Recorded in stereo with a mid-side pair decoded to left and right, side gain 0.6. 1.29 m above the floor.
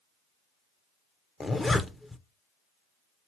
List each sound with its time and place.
1.4 s a zipper: 15° left, 0.6 m